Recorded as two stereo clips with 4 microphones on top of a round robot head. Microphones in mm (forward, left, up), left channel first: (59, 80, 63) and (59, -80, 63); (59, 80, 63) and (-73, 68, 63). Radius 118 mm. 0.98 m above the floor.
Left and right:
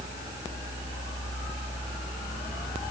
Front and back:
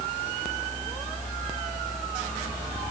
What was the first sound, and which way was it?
Only background noise.